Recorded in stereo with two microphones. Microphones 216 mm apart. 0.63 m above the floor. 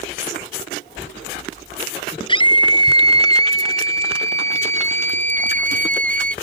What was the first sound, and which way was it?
A scream, 25° left (ahead or behind).